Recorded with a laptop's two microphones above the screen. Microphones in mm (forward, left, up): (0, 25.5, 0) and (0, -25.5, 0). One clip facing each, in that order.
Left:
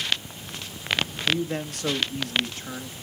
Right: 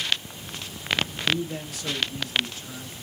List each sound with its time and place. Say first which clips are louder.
1.3 s a man speaking: left 1 dB; 55° left (ahead or behind), 1.6 m